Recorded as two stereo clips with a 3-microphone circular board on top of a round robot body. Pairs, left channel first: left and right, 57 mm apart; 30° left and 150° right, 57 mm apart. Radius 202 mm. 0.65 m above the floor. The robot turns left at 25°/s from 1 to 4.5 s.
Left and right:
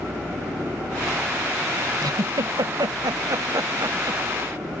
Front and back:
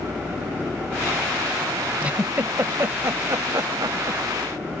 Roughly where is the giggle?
Right.